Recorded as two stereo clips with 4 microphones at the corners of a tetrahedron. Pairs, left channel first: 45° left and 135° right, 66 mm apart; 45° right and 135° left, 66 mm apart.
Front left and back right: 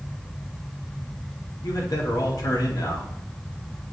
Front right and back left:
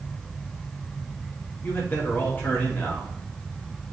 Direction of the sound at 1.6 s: 15° left.